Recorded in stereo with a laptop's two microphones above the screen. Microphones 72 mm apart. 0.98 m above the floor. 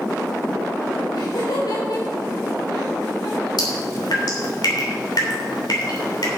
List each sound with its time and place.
1.1 s laughter: 80° left, 3.5 m; by 3.5 s 60° left (ahead or behind), 4 m
3.6 s dripping: 75° left (ahead or behind), 3 m